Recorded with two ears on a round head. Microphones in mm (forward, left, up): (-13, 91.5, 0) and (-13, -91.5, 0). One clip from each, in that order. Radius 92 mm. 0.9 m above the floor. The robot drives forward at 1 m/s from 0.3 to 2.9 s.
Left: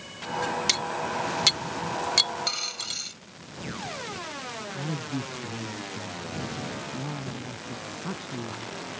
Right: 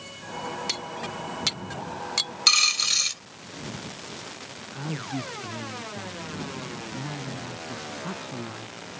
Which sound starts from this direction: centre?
A man speaking, at 4.7 s.